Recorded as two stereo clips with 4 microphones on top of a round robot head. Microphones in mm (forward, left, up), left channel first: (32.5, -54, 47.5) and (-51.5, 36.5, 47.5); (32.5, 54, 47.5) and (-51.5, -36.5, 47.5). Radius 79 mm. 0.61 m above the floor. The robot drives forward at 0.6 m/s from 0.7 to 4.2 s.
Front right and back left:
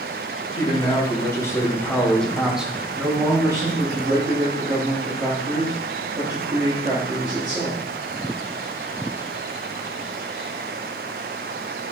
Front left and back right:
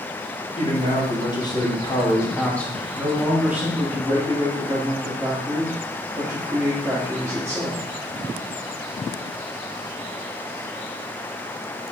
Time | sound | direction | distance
0.6 | a man speaking | 5° left | 1.5 m